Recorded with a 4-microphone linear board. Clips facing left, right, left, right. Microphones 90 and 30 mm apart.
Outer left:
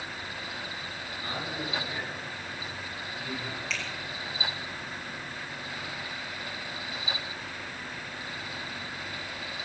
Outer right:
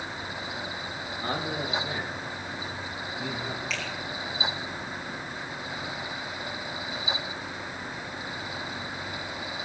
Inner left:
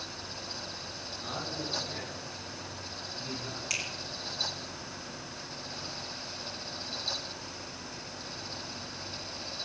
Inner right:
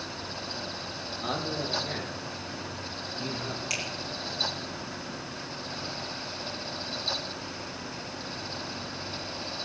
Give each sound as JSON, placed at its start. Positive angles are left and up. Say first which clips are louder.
{"t": 1.2, "sound": "a man speaking", "louder": "outer right 5 dB, inner right 6 dB", "side_deg": -45, "distance_m": 4.5}
{"t": 3.7, "sound": "a finger snap", "louder": "outer right 2 dB, inner right 1 dB", "side_deg": 0, "distance_m": 5.5}